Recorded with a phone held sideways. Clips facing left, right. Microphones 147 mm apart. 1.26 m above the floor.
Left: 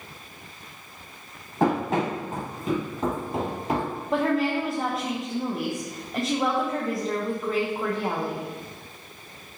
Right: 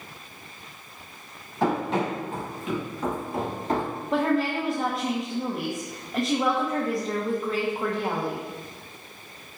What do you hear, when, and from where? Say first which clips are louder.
1.6 s running footsteps: left 1 dB; 50° left (ahead or behind), 2 m; by 3.9 s 5° left (ahead or behind), 1.2 m
4.1 s a woman speaking: even; centre (ahead or behind), 0.5 m